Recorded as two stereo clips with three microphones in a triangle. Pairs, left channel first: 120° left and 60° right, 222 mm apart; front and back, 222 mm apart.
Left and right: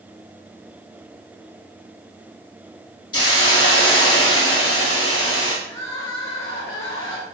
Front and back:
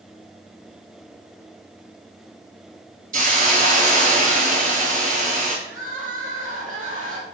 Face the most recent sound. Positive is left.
turn(degrees=130)